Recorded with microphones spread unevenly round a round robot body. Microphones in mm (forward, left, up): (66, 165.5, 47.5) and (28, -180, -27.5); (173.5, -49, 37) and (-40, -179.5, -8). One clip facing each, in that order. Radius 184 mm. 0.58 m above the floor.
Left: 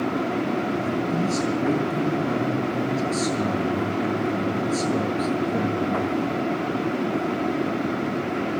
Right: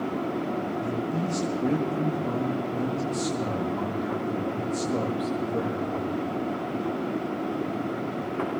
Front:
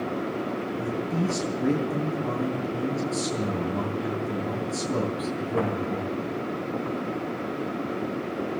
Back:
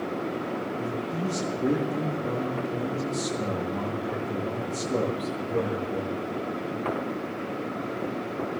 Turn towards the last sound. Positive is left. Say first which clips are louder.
# left 4 dB, front 3 dB
turn(degrees=60)